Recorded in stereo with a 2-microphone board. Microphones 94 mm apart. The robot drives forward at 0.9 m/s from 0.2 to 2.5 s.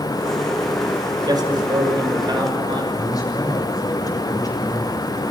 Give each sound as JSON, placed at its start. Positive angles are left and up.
{"t": 1.3, "sound": "a man speaking", "side_deg": -50, "distance_m": 6.0}
{"t": 2.9, "sound": "a man speaking", "side_deg": 40, "distance_m": 6.5}